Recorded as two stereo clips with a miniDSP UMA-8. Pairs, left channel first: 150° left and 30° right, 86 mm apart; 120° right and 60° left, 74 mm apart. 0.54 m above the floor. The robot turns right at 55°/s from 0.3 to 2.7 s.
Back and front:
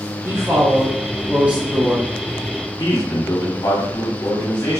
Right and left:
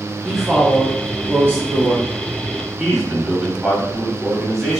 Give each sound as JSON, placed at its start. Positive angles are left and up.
{"t": 0.2, "sound": "a woman speaking", "azimuth_deg": -30, "distance_m": 1.2}
{"t": 2.8, "sound": "a man speaking", "azimuth_deg": 140, "distance_m": 1.3}